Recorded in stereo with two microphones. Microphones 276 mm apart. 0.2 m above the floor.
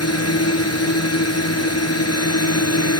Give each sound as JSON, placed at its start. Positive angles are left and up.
{"t": 0.0, "sound": "a drone", "side_deg": 60}